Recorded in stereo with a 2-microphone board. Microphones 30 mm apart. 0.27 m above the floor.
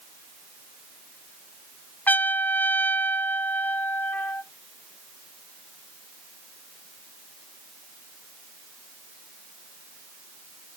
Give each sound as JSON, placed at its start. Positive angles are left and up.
{"t": 2.1, "sound": "a trumpet", "side_deg": 70, "distance_m": 0.6}